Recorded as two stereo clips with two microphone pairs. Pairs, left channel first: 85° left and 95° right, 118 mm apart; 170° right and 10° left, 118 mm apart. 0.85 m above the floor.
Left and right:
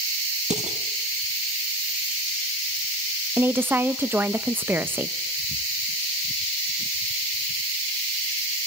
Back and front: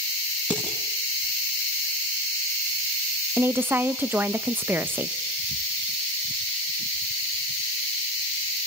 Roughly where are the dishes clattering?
Right.